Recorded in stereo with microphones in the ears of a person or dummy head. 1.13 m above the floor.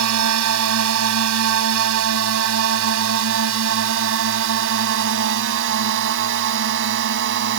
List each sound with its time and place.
0.0 s a drone: 75° right (ahead or behind); by 7.6 s 55° right (ahead or behind)